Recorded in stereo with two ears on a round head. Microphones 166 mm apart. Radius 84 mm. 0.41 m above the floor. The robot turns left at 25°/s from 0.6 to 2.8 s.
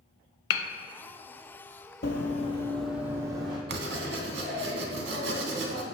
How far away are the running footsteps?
About 0.6 m.